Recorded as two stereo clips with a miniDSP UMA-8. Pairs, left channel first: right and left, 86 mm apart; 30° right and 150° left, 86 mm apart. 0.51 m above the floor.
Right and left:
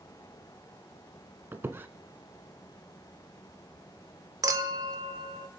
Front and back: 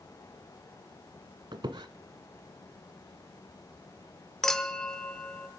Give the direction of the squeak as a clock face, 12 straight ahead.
7 o'clock.